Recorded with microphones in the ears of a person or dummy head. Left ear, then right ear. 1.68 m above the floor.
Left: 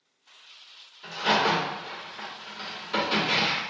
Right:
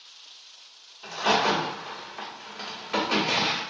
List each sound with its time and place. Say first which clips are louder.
1.0 s a crack: even; 25° right (ahead or behind), 1.1 m